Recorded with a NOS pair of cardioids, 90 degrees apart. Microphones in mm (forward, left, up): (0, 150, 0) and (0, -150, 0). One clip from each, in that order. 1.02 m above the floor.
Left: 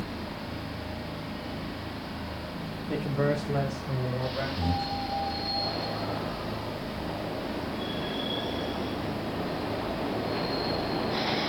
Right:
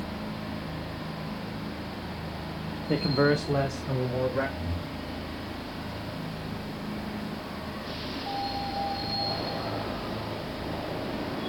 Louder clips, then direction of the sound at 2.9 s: Right 4 dB; 40° right.